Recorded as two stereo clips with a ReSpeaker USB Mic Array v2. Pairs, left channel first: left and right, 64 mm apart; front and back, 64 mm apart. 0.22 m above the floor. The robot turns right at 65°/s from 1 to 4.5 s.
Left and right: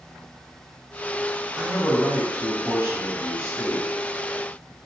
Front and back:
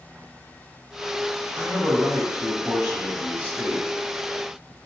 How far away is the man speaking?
About 1.3 m.